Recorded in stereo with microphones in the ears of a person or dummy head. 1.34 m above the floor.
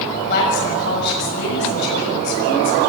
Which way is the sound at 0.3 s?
75° left (ahead or behind).